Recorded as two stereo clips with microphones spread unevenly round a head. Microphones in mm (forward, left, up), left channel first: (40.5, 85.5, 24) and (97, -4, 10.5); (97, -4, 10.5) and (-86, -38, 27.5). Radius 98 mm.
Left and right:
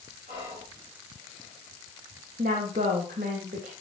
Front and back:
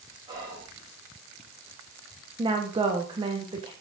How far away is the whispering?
About 6.5 m.